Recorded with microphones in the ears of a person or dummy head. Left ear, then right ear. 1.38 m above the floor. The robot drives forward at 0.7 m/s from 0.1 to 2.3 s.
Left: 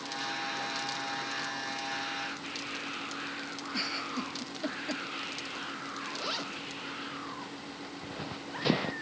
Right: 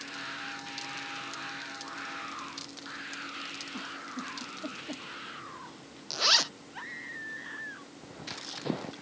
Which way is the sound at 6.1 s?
40° right (ahead or behind).